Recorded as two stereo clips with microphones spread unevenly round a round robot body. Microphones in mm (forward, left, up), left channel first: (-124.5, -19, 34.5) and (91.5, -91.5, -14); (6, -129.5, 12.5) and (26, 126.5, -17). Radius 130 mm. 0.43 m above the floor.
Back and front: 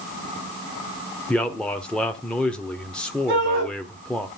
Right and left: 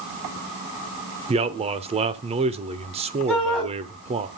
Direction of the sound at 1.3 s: 60° left.